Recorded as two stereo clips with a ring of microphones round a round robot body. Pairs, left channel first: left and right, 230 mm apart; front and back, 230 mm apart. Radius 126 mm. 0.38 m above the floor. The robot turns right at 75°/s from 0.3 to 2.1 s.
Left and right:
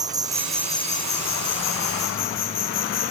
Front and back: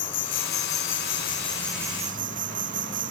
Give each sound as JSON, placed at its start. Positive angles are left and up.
{"t": 0.0, "sound": "an insect", "azimuth_deg": -15}